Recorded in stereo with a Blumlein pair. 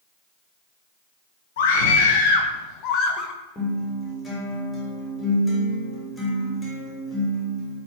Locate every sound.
1.6 s a scream: 50° left, 3.5 m; by 3.3 s 30° left, 2.5 m
3.5 s a guitar: 10° left, 6 m